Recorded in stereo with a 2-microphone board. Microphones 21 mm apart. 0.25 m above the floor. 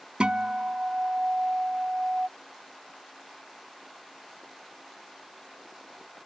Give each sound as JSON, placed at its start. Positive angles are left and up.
{"t": 0.2, "sound": "a guitar", "side_deg": -60}